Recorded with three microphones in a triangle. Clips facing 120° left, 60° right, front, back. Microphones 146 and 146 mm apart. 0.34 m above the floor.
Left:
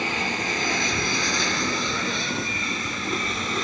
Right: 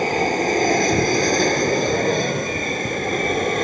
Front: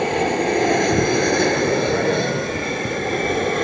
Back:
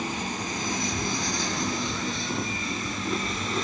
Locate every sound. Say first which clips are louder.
0.0 s an aircraft: right 9 dB, front 13 dB; 15° right; by 3.6 s 25° right